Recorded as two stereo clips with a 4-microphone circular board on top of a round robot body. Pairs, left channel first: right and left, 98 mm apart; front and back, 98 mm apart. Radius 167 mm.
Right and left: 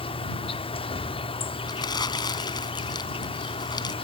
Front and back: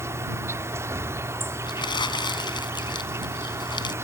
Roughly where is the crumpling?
Ahead right.